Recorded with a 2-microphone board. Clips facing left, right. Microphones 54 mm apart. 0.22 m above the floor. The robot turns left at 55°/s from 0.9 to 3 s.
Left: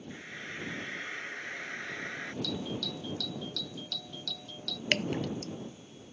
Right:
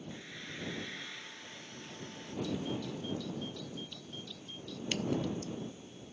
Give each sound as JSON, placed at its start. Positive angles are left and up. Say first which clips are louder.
{"t": 0.1, "sound": "frying", "louder": "left 4 dB", "azimuth_deg": 150}
{"t": 2.4, "sound": "a doorbell", "louder": "left 1 dB", "azimuth_deg": 105}
{"t": 4.9, "sound": "dripping", "louder": "left 3 dB", "side_deg": 60}